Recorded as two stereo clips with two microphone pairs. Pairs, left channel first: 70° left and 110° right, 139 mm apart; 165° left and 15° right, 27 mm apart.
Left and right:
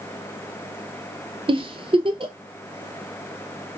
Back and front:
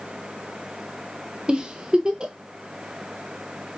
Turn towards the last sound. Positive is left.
turn(degrees=-70)